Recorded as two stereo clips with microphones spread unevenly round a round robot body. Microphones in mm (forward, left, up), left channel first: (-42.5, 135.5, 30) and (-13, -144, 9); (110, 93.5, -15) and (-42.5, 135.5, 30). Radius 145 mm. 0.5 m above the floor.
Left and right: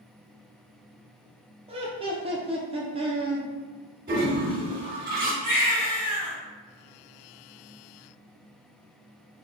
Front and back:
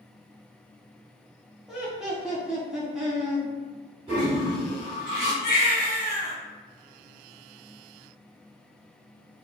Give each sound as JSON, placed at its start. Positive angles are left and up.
{"t": 1.7, "sound": "laughter", "azimuth_deg": -75, "distance_m": 0.7}
{"t": 4.1, "sound": "a toilet flushing", "azimuth_deg": -130, "distance_m": 1.8}
{"t": 5.4, "sound": "a baby crying", "azimuth_deg": 10, "distance_m": 1.5}